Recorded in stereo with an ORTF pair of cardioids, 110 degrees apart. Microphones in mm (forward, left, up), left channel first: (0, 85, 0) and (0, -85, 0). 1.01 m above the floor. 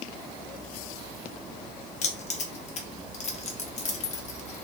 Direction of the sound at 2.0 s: 45° left.